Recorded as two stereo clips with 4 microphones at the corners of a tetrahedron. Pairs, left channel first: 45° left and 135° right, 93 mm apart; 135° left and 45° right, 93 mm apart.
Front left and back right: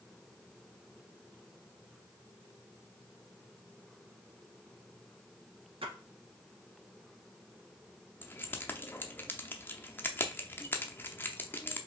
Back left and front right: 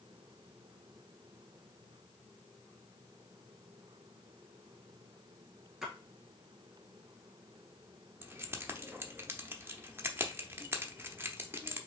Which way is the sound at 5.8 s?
130° right.